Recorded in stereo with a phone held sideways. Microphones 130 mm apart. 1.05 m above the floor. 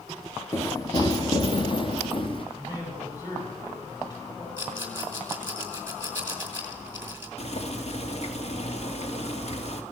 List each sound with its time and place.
0.5 s running footsteps: 20° left (ahead or behind), 1.1 m; by 2.5 s 40° left (ahead or behind), 2.5 m
2.5 s a man speaking: 30° left (ahead or behind), 6 m
4.6 s a rattle: 15° right (ahead or behind), 3.5 m
7.4 s boiling: 55° left (ahead or behind), 2.5 m